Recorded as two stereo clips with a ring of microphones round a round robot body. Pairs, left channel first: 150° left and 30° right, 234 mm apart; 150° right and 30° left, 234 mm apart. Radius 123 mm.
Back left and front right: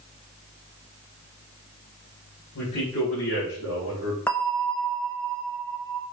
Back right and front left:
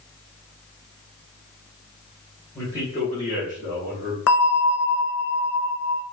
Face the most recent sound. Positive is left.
turn(degrees=-125)